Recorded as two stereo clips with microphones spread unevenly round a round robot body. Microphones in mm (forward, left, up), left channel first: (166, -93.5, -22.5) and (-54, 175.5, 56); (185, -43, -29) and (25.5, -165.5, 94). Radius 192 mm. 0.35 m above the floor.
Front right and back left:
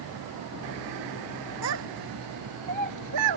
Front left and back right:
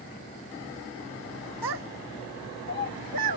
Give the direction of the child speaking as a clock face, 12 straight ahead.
6 o'clock.